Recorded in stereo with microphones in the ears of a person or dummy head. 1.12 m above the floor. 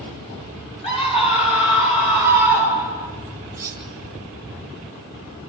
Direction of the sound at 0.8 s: 30° left (ahead or behind).